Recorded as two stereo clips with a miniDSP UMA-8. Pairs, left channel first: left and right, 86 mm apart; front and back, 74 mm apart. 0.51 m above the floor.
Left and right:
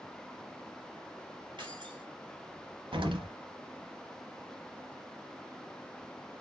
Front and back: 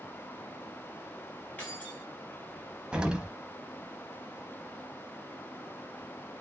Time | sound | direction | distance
1.6 | keys jangling | 70° right | 2.5 m
2.9 | an explosion | 105° right | 1.1 m